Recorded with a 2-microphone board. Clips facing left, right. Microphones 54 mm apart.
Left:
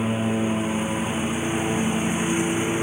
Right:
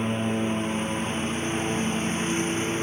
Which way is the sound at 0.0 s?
5° left (ahead or behind).